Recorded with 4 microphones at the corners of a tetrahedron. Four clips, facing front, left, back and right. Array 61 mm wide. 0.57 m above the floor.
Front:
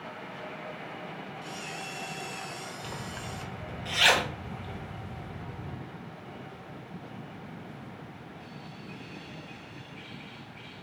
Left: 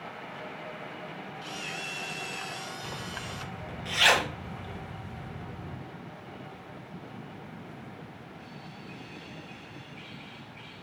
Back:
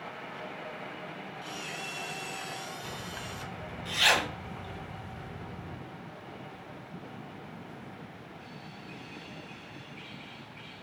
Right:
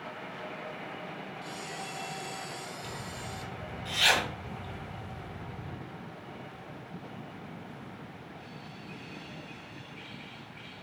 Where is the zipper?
45° left, 2.5 m.